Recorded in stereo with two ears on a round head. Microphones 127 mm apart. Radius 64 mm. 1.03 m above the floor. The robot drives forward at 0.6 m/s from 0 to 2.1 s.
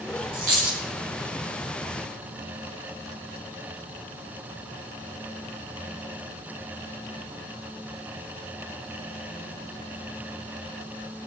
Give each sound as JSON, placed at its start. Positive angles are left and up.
{"t": 0.3, "sound": "a dropped coin", "side_deg": -70, "distance_m": 4.5}